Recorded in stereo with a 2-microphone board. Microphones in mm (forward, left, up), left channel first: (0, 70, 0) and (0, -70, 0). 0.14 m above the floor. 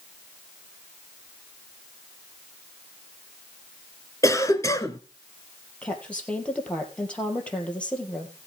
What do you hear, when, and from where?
4.2 s a cough: 25° left (ahead or behind), 1.3 m
5.8 s a woman speaking: 10° left (ahead or behind), 3.5 m